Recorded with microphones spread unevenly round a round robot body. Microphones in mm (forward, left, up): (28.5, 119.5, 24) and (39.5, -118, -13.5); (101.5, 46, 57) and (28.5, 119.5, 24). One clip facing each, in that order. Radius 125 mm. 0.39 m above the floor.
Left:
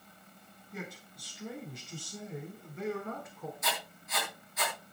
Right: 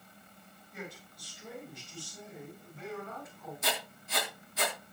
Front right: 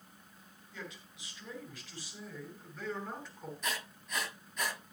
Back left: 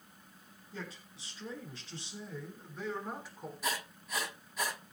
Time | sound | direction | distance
0.7 | a man speaking | 85° left | 7.5 m
3.6 | writing | 145° right | 4 m